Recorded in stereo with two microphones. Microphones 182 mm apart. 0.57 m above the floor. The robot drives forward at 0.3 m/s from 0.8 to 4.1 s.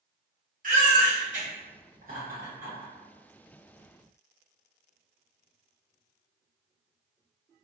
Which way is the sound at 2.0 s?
45° right (ahead or behind).